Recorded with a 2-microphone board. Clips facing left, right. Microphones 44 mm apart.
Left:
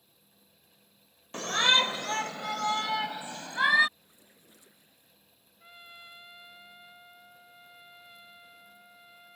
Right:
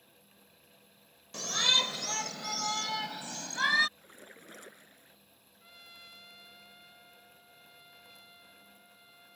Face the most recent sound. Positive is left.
turn(degrees=20)  # may be behind; listen again after turning